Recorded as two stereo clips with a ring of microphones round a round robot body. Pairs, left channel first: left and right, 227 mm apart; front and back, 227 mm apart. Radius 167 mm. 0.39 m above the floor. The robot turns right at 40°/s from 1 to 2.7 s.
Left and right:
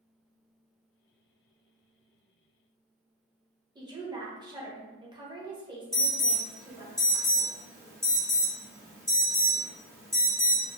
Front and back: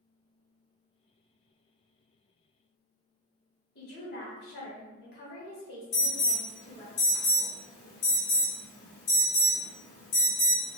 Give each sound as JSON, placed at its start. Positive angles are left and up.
{"t": 3.8, "sound": "a woman speaking", "azimuth_deg": -25, "distance_m": 1.6}
{"t": 5.9, "sound": "an alarm", "azimuth_deg": -15, "distance_m": 1.8}